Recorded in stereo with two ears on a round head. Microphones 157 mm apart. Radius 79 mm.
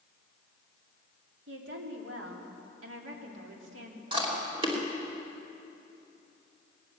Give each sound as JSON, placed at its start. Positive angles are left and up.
{"t": 1.5, "sound": "a woman speaking", "side_deg": -80, "distance_m": 3.0}
{"t": 4.1, "sound": "chewing", "side_deg": -30, "distance_m": 3.0}